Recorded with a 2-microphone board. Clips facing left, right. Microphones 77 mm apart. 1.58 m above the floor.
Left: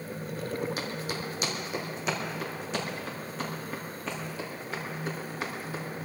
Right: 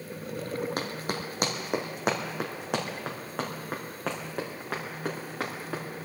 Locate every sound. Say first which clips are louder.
0.8 s running footsteps: right 1 dB; 50° right (ahead or behind), 2.5 m; by 5.8 s 70° right (ahead or behind), 6 m